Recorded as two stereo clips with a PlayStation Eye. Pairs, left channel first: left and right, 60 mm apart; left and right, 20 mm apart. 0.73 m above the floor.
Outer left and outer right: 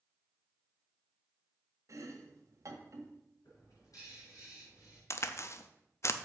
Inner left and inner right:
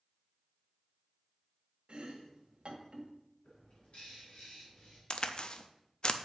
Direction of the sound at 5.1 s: 50° left (ahead or behind).